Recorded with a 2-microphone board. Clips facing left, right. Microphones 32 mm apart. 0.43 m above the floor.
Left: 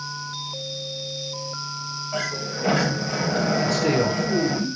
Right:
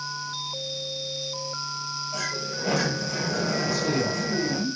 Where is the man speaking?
70° left (ahead or behind), 5.5 m.